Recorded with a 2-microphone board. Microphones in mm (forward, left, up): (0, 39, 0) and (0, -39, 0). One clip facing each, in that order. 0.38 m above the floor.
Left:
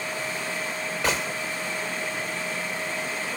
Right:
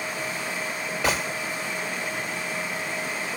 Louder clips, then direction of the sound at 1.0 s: Right 1 dB; 5° right (ahead or behind).